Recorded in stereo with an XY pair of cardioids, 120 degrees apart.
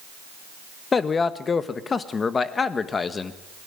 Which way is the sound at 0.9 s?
30° left.